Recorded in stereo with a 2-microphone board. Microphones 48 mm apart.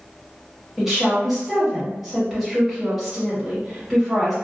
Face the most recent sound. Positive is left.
turn(degrees=-5)  # may be behind; listen again after turning